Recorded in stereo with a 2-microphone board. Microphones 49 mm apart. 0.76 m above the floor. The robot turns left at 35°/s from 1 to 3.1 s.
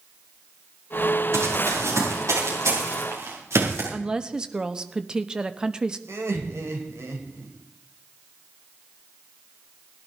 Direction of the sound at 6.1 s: 65° right (ahead or behind).